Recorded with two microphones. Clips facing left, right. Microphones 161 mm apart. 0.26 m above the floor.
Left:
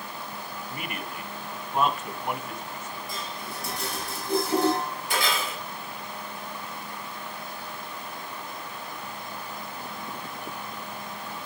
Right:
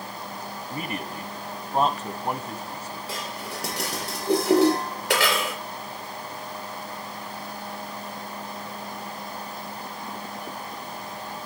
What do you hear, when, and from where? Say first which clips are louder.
0.7 s a man speaking: right 5 dB; 35° right (ahead or behind), 1.5 m
3.1 s dishes clattering: right 3 dB; 75° right (ahead or behind), 4.5 m